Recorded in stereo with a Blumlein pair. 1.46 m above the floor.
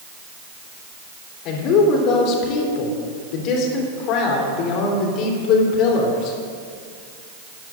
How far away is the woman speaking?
About 3.5 m.